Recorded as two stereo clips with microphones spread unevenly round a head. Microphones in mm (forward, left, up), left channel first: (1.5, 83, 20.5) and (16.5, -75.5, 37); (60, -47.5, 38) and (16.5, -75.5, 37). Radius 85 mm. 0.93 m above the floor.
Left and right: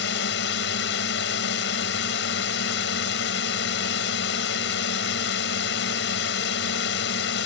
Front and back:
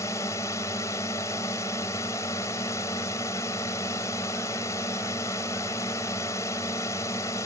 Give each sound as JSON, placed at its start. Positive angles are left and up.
{"t": 0.0, "sound": "a drone", "azimuth_deg": 85}